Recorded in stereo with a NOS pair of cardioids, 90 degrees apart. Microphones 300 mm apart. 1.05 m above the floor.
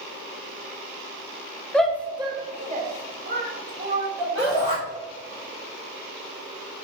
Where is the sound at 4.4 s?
15° left, 2.0 m.